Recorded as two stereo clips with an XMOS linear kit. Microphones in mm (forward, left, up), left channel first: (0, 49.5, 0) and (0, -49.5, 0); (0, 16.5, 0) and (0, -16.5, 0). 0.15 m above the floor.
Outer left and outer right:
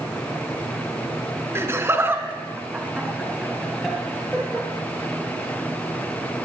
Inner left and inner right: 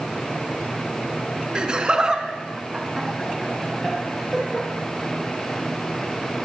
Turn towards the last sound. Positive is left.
turn(degrees=5)  # may be behind; listen again after turning